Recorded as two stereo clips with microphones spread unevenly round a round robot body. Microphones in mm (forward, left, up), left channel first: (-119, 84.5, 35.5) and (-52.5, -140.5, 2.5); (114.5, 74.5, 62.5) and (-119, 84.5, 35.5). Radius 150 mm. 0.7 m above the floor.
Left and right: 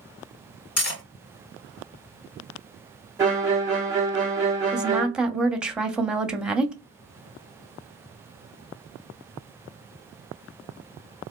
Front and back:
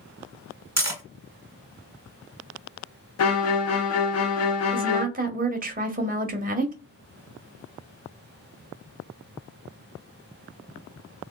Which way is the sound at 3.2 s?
Straight ahead.